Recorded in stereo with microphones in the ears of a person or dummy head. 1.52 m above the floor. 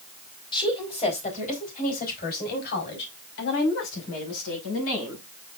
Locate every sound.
0.5 s a woman speaking: 25° left (ahead or behind), 4 m; by 5.2 s 85° left, 6.5 m